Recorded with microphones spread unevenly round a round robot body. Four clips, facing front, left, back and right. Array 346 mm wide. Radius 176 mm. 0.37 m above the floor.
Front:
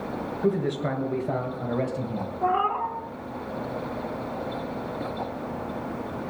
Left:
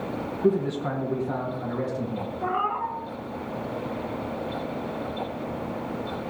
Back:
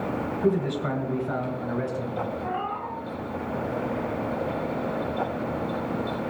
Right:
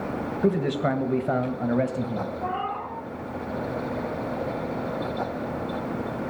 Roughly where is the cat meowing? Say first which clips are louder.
Left 3 dB, front 6 dB; ahead.